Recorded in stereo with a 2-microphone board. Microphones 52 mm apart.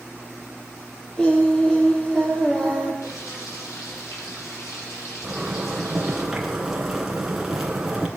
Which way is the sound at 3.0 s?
75° left (ahead or behind).